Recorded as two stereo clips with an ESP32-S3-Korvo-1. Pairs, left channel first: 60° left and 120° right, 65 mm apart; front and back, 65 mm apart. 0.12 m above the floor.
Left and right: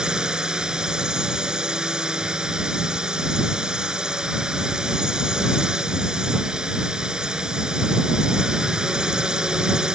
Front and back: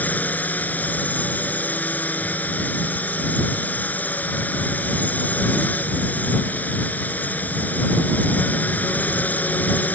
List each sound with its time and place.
0.0 s a drone: 50° right